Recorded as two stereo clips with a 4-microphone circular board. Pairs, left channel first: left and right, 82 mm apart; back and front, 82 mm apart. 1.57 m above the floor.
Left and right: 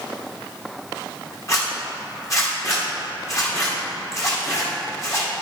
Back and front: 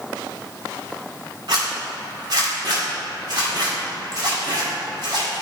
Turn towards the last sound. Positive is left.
turn(degrees=40)